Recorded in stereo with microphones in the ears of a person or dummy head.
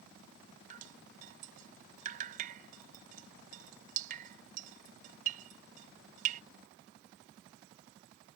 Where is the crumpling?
I don't hear crumpling.